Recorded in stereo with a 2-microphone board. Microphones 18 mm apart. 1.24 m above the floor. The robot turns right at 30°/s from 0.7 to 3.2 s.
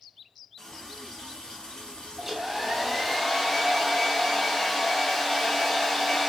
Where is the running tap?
40° left, 1.3 m; by 3.2 s 115° left, 1.3 m.